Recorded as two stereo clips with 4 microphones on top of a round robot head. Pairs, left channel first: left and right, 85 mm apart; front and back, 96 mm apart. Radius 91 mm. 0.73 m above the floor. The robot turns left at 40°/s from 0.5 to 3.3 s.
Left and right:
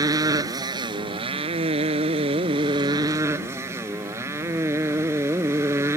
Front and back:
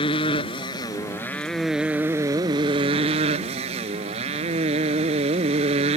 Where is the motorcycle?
45° right; by 6.0 s 155° right.